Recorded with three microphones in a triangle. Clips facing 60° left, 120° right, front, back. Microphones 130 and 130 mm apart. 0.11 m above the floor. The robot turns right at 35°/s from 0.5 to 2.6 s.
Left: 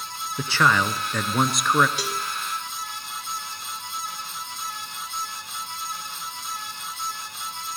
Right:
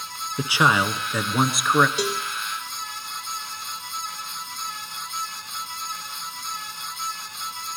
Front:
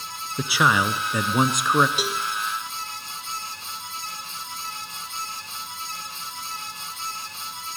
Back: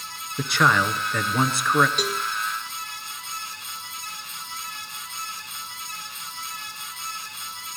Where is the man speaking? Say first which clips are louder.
Right 1 dB, even; 70° right, 1.2 m; by 1.9 s 20° right, 1.2 m.